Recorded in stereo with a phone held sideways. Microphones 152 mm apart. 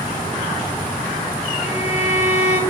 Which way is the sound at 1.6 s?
50° left (ahead or behind).